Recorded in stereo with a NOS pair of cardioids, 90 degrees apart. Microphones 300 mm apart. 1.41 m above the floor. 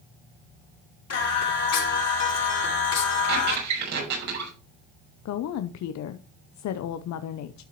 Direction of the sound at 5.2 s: 65° left.